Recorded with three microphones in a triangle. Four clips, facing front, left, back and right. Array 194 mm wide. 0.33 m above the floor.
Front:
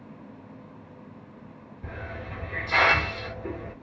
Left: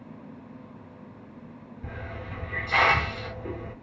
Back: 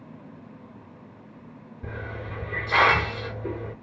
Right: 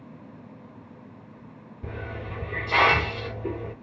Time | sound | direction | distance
1.8 | a hiss | 135° right | 2 m